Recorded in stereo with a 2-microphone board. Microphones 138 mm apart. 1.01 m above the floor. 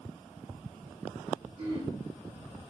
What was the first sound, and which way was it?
Throat clearing, 45° right (ahead or behind).